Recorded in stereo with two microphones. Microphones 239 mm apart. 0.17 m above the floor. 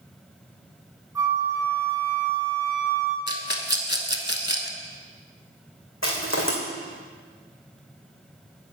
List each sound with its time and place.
1.1 s a flute: 15° right (ahead or behind), 1.6 m
3.3 s a rattle: 45° left (ahead or behind), 0.7 m
6.0 s crushing: 65° left (ahead or behind), 2.5 m